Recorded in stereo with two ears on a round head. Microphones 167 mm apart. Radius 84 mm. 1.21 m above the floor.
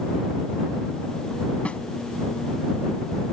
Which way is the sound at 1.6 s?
5° left (ahead or behind).